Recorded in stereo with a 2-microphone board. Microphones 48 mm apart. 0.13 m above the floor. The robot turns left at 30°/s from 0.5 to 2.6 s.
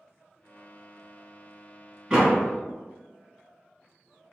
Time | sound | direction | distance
2.1 | a door slam | 20° right (ahead or behind) | 1.5 m